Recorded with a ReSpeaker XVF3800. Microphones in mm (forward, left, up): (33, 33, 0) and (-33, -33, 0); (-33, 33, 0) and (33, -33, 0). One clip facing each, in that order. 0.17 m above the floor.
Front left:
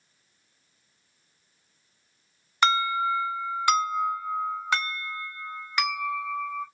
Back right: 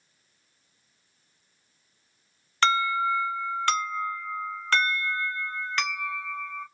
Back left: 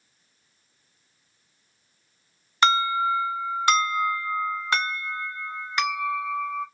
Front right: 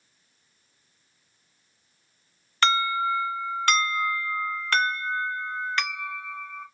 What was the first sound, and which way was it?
An alarm, 95° left.